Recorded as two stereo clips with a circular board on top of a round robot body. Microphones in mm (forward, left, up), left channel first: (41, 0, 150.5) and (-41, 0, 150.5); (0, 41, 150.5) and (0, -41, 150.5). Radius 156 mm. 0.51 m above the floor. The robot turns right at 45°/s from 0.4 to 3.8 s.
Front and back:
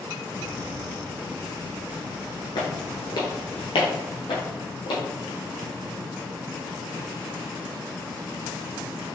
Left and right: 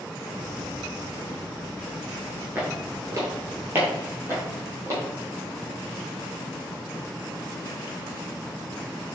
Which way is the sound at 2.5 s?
25° right.